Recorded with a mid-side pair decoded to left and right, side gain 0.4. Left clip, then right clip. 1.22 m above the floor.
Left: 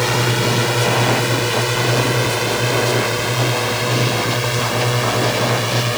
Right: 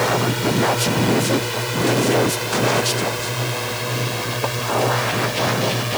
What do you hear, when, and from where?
0.0 s a drone: 45° left; by 6.0 s 40° left